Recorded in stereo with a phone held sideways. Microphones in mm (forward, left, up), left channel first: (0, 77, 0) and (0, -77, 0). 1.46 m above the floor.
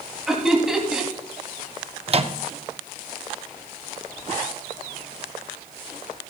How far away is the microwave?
About 0.6 m.